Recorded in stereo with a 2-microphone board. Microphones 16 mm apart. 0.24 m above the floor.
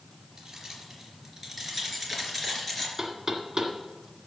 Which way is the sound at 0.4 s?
30° right (ahead or behind).